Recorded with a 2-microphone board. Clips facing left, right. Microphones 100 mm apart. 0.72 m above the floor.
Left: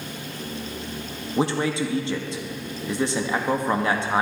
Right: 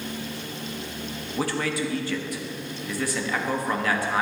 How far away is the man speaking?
About 0.7 m.